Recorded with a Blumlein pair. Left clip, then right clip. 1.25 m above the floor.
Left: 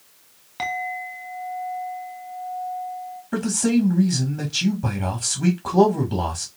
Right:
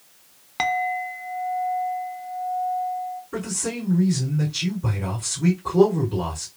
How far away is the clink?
About 0.7 m.